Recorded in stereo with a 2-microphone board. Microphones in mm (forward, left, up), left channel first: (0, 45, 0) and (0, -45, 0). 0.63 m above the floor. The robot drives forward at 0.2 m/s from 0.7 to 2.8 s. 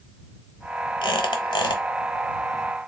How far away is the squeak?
About 0.8 m.